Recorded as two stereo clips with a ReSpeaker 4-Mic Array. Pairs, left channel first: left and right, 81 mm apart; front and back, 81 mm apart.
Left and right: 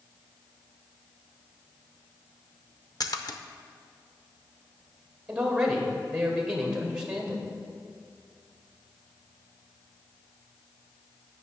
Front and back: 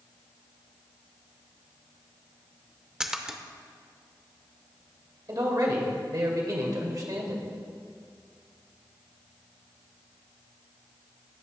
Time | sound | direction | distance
3.0 | a splash | 100° left | 0.6 m
5.3 | a man speaking | 165° right | 2.0 m